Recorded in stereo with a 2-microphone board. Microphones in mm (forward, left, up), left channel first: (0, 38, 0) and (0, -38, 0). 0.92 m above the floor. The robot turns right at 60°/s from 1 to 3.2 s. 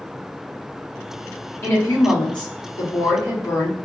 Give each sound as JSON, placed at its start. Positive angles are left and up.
{"t": 1.6, "sound": "a woman speaking", "azimuth_deg": 35, "distance_m": 1.6}